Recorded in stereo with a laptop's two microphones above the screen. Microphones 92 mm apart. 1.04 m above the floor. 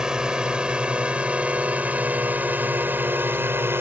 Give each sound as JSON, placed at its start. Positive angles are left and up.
{"t": 0.0, "sound": "a drone", "side_deg": -5}